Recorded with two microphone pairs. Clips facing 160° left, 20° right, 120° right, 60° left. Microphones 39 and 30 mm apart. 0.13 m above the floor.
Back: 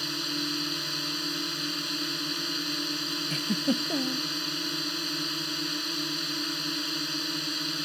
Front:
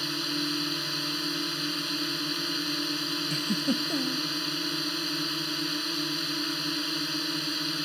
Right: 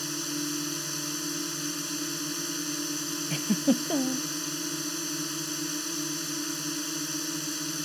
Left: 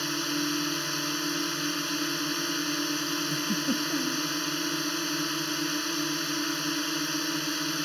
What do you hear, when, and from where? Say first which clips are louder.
0.0 s a drone: front 1 dB, left 4 dB; 60° left
3.3 s a giggle: back 1 dB, right 7 dB; 135° right